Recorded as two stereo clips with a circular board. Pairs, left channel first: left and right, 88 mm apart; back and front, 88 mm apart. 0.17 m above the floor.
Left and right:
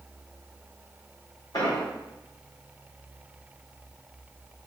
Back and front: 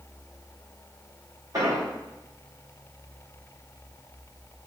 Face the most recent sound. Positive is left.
turn(degrees=50)